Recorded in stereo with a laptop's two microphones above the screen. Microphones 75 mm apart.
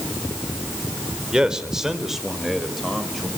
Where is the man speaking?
10° right (ahead or behind), 4 m; by 3.3 s 5° left (ahead or behind), 5 m.